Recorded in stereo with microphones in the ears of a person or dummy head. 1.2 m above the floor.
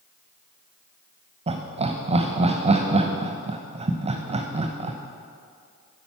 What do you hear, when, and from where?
1.5 s laughter: 35° right (ahead or behind), 0.9 m